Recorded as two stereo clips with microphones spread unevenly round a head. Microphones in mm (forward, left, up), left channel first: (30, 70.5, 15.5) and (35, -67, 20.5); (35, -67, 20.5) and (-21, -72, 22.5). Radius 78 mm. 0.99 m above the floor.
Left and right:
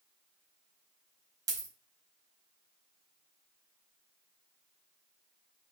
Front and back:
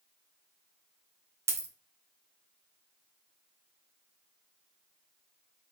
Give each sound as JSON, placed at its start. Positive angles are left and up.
{"t": 1.5, "sound": "a dropped coin", "azimuth_deg": -150, "distance_m": 0.6}